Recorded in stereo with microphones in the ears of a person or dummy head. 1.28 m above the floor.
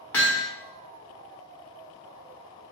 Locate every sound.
0.1 s hammering: 10° left (ahead or behind), 0.7 m